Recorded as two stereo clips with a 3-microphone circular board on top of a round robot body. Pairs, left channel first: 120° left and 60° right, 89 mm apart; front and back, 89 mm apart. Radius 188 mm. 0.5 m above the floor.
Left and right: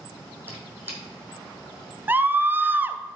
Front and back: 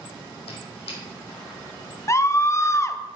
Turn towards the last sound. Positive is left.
turn(degrees=-10)